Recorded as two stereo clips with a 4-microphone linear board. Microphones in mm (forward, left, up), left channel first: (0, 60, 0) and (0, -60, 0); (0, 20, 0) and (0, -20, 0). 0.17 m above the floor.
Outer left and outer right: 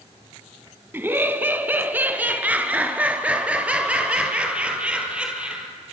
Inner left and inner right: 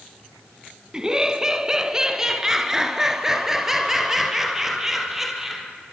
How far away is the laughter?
About 1.4 m.